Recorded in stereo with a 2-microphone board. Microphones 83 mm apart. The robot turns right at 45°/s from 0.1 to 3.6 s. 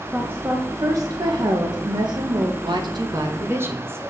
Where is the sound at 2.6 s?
75° right, 1.2 m; by 4.1 s 30° right, 1.2 m.